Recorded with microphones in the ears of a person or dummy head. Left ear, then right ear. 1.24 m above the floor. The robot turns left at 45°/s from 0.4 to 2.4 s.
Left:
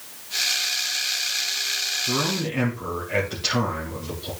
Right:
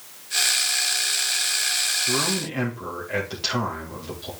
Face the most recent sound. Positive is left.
turn(degrees=-30)  # may be behind; listen again after turning